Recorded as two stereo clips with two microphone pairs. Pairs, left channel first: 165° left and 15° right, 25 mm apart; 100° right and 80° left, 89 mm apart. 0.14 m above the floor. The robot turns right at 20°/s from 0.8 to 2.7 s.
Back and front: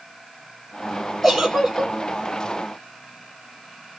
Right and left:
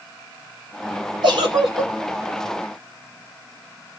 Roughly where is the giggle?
Left.